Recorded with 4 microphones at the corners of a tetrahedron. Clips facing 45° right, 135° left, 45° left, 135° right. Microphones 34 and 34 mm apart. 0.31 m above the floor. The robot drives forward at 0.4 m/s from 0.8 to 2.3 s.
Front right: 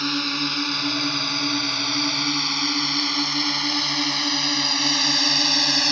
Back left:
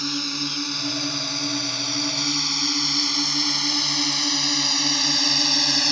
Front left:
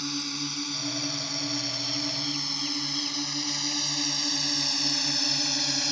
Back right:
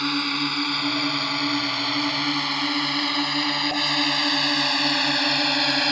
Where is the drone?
105° right; by 5.9 s 125° right.